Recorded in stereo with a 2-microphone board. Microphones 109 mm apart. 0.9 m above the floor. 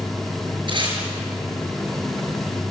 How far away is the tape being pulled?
About 6.5 m.